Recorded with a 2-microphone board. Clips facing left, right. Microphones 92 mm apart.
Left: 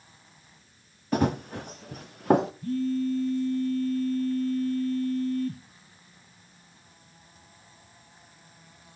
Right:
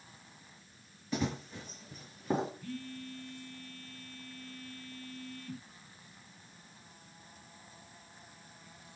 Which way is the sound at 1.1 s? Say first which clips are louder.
Left 10 dB; 55° left (ahead or behind).